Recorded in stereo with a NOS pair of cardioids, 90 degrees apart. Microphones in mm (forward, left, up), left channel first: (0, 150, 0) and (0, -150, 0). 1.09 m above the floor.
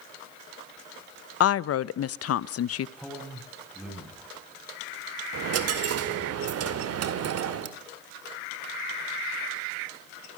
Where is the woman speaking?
55° left, 0.8 m.